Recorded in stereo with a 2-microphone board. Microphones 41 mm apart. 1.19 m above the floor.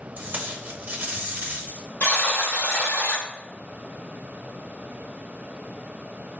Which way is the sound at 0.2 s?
40° right (ahead or behind).